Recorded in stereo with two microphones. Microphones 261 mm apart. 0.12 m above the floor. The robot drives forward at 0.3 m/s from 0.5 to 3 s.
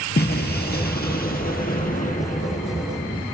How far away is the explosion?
About 1.9 m.